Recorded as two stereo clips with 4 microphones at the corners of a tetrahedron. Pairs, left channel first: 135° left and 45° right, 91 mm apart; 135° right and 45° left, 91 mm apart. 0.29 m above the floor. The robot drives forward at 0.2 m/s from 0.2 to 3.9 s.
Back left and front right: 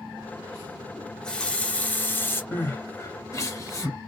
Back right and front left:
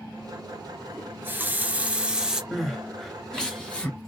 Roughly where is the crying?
Behind left.